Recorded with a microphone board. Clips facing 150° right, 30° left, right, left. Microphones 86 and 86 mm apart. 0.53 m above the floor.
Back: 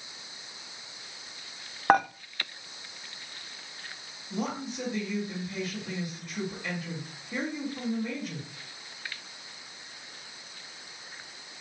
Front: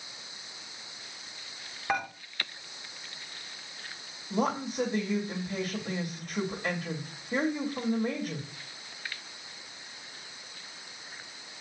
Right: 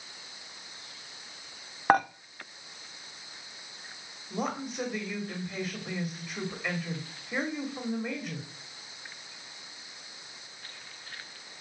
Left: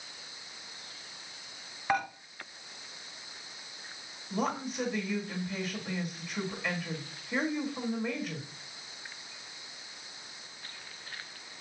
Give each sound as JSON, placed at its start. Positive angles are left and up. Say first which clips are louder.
{"t": 1.9, "sound": "dishes clattering", "louder": "back 9 dB, right 7 dB", "azimuth_deg": -125, "distance_m": 0.6}
{"t": 4.3, "sound": "a woman speaking", "louder": "front 4 dB, left 1 dB", "azimuth_deg": -10, "distance_m": 1.5}